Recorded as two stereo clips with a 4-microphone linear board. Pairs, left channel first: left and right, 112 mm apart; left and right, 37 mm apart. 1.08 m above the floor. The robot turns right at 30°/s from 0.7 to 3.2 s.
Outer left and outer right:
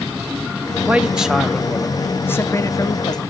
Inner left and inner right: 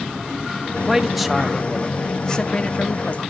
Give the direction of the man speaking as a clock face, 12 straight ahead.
1 o'clock.